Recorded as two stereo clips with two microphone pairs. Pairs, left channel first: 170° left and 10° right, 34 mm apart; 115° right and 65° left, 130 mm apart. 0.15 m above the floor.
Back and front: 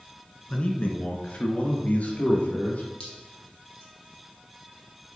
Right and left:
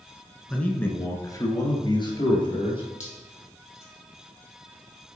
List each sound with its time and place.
0.5 s a man speaking: 170° left, 1.3 m; by 2.9 s 160° right, 2.5 m
3.0 s dripping: 130° right, 3 m